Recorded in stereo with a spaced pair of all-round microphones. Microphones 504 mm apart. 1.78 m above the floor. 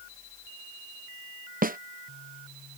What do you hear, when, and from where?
1.6 s a snare drum: 20° right (ahead or behind)